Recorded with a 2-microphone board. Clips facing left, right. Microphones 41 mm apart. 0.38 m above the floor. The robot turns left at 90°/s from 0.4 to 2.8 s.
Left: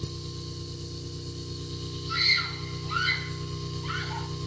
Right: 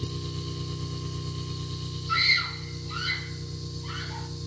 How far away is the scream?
About 3 m.